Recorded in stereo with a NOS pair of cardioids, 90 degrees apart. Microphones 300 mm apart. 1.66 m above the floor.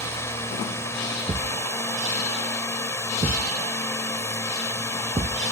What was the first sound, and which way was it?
A drone, 10° left.